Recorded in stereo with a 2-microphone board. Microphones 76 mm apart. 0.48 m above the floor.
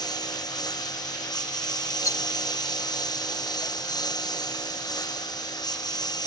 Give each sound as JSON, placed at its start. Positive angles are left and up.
{"t": 0.0, "sound": "a lawn mower", "side_deg": 75}
{"t": 2.0, "sound": "a rattle", "side_deg": 55}